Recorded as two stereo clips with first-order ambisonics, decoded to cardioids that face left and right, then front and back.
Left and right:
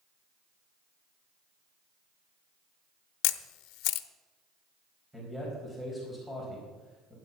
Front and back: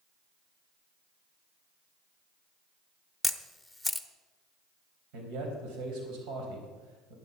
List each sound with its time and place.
3.2 s a camera shutter: 90° left, 0.6 m
5.1 s a man speaking: 175° right, 3.5 m